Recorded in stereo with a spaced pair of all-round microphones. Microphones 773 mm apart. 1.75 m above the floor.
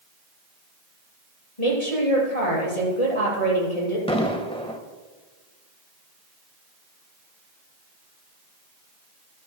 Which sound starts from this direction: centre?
An explosion, at 4.1 s.